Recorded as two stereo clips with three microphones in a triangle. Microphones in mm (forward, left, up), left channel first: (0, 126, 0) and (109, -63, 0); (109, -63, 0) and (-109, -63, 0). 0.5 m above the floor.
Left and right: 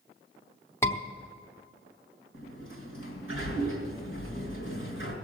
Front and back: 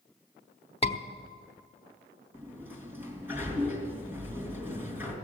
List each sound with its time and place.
0.8 s a scream: 45° left, 1.1 m
2.3 s a sliding door: 100° left, 3 m